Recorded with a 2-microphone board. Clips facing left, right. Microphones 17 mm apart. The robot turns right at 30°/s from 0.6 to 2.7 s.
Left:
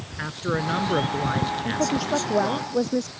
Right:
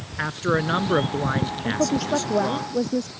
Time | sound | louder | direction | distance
0.2 | a man speaking | right 4 dB | 20° right (ahead or behind) | ?
1.6 | a woman speaking | right 1 dB | 20° right | ?